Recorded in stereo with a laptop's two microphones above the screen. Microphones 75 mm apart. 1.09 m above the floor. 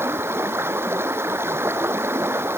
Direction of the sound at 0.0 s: 30° right (ahead or behind).